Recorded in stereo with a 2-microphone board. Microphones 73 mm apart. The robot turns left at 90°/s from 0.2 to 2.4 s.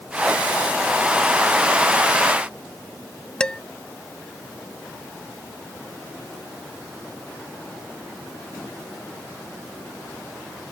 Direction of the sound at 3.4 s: 15° left (ahead or behind).